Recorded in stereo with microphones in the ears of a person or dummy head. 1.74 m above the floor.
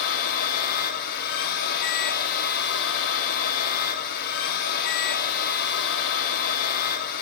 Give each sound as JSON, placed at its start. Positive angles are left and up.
{"t": 0.0, "sound": "a machine running", "side_deg": 50, "distance_m": 1.0}